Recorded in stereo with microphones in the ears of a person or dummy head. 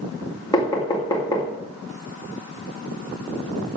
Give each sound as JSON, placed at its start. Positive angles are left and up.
{"t": 0.5, "sound": "knocking", "side_deg": 15, "distance_m": 2.5}